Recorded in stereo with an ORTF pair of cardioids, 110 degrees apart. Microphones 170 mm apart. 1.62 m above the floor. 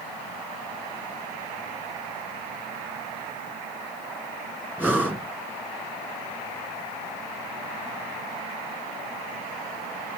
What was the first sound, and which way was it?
Breathing, 10° right.